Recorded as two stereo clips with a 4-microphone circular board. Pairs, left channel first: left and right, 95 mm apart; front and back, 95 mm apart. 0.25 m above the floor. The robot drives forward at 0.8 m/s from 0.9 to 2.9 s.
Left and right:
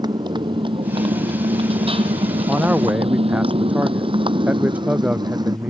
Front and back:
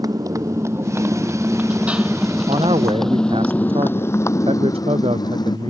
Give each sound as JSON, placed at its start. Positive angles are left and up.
{"t": 0.0, "sound": "a motorcycle", "azimuth_deg": -130}
{"t": 2.5, "sound": "a man speaking", "azimuth_deg": -165}